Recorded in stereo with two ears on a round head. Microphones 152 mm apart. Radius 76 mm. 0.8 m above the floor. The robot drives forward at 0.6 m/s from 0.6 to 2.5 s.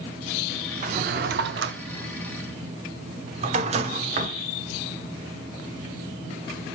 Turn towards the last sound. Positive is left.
turn(degrees=-40)  # may be behind; listen again after turning